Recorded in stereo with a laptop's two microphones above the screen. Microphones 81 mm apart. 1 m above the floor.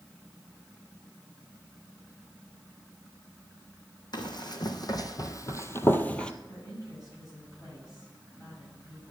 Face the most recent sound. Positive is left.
turn(degrees=35)  # may be behind; listen again after turning